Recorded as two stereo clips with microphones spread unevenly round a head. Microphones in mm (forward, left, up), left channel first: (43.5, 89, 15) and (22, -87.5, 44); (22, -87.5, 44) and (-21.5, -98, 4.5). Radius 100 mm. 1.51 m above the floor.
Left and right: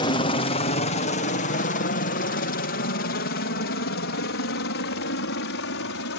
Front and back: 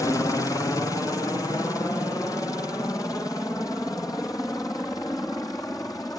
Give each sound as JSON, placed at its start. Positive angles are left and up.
{"t": 0.0, "sound": "a helicopter", "azimuth_deg": 70}